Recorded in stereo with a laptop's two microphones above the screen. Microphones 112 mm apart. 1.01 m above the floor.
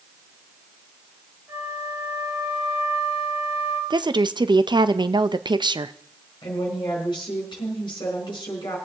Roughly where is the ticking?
I don't hear ticking.